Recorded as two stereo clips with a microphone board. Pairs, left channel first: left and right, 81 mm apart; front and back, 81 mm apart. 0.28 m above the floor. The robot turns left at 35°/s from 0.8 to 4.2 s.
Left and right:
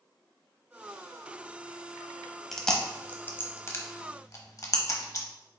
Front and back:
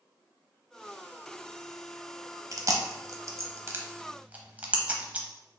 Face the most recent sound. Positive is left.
turn(degrees=115)